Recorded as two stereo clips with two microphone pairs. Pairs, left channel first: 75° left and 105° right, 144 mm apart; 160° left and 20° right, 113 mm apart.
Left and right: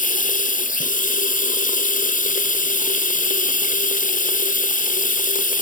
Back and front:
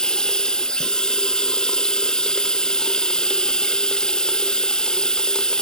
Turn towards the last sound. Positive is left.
turn(degrees=75)